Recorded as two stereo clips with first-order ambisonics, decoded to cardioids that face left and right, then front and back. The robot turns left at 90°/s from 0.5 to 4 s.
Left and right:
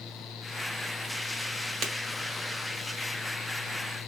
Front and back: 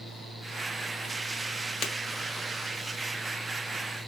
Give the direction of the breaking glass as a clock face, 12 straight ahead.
1 o'clock.